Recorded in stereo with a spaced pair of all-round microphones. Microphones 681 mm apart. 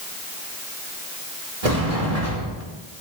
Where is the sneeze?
I don't hear a sneeze.